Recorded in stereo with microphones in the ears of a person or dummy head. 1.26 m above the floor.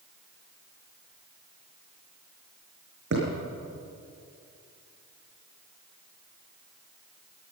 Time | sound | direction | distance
3.1 | a thud | 70° right (ahead or behind) | 5.5 m